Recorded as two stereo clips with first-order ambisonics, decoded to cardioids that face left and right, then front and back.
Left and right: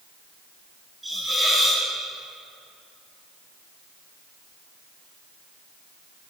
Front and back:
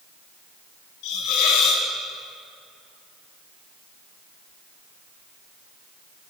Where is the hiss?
10° right, 3 m.